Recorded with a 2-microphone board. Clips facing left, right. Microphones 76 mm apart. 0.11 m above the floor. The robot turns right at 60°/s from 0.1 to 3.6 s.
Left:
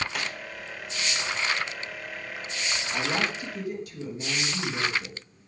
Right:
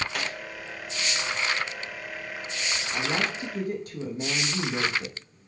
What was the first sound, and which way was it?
A snare drum, 5° left (ahead or behind).